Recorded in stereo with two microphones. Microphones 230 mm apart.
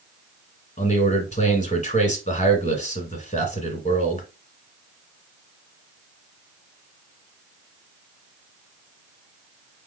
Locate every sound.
0.8 s a man speaking: 30° left (ahead or behind), 1.7 m